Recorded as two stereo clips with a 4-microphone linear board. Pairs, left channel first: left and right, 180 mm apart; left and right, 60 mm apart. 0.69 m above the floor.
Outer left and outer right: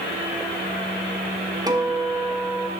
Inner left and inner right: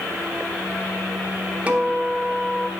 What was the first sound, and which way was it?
A guitar, 20° right (ahead or behind).